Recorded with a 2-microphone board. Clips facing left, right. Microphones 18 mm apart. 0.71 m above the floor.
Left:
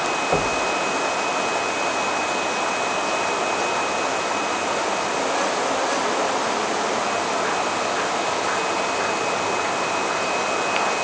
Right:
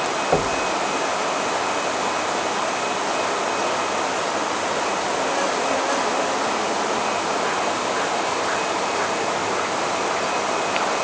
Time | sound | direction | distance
0.3 | knocking | 15° right (ahead or behind) | 2 m